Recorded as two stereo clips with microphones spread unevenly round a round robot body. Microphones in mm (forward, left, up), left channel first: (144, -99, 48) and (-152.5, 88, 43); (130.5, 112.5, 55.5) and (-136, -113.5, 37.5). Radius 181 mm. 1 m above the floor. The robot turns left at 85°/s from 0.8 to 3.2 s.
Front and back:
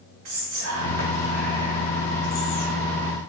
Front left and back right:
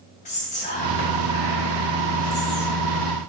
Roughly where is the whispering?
Left.